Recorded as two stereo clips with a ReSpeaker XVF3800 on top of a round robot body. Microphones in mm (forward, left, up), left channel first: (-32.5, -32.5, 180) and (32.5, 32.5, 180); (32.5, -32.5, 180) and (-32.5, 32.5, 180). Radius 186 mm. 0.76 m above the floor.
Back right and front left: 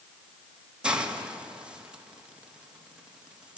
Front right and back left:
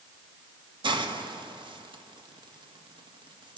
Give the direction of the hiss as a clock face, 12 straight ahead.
8 o'clock.